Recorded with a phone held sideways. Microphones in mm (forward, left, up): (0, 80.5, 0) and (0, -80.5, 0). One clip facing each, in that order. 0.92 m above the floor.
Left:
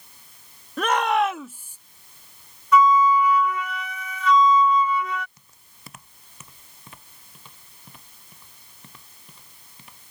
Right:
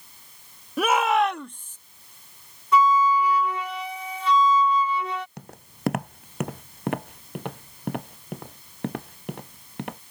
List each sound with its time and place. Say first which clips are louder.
0.8 s a shout: even; 10° right (ahead or behind); by 1.8 s 10° left (ahead or behind)
2.7 s a flute: left 2 dB; 30° right (ahead or behind)
5.4 s footsteps: right 17 dB; 70° right (ahead or behind); by 10.0 s 65° right (ahead or behind)